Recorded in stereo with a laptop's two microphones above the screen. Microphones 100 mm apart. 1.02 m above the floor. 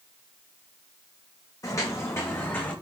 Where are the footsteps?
40° left (ahead or behind), 3.5 m; by 2.7 s 20° left (ahead or behind), 3.5 m.